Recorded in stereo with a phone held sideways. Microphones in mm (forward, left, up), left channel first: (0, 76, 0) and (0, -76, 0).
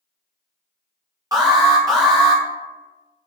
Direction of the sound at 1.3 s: 25° right (ahead or behind).